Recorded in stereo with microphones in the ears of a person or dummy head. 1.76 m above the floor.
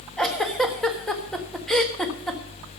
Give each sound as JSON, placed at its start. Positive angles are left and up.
{"t": 0.2, "sound": "a giggle", "side_deg": 5, "distance_m": 1.5}